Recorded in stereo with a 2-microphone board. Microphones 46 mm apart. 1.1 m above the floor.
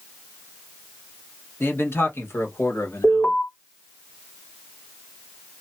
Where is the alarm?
60° left (ahead or behind), 2 m.